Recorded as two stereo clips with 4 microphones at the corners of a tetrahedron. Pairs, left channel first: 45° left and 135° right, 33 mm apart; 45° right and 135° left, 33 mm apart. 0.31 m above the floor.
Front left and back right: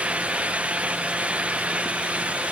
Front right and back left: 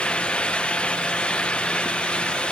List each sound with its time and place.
Only background noise.